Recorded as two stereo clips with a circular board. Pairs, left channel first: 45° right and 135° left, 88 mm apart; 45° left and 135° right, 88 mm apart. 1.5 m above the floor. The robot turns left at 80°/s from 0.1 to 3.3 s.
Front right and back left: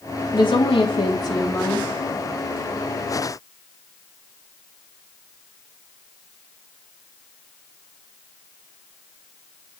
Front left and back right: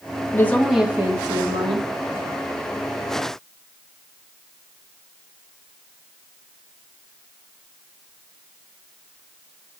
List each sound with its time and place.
0.3 s a woman speaking: 15° right, 3 m; by 1.9 s 140° right, 3 m